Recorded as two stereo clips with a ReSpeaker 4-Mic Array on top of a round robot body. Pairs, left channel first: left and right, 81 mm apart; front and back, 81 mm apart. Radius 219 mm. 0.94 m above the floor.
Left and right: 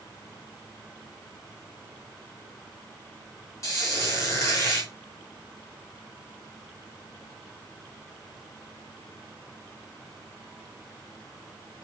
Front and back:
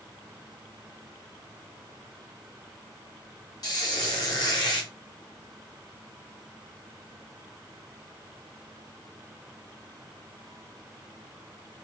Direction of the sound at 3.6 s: 40° left.